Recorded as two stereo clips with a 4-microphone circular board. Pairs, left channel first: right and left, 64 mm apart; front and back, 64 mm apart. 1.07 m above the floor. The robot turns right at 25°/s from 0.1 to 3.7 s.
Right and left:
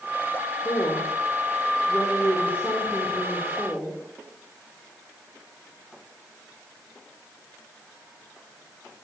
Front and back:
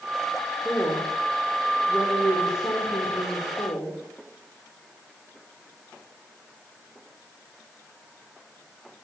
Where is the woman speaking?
80° right, 4 m; by 4.0 s straight ahead, 4 m.